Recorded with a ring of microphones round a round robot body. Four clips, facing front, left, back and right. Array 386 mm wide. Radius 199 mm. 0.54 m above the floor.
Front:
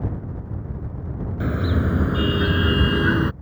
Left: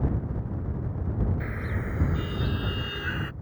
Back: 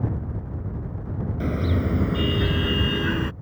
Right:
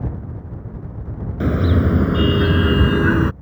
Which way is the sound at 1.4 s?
85° right.